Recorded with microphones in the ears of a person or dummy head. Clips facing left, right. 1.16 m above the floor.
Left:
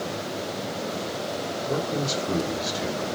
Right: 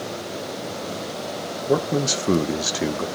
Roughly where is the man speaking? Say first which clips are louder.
Right 7 dB; right.